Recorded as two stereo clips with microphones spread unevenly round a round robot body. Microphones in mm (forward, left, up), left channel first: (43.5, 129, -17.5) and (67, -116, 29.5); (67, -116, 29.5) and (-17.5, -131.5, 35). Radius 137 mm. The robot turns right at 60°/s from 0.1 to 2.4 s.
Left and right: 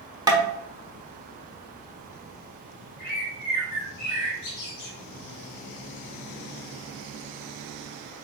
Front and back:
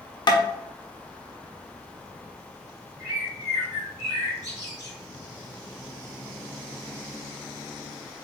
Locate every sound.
0.3 s tapping: 5° right, 0.9 m; by 0.4 s 5° left, 0.9 m
3.0 s a bird: 100° left, 1.7 m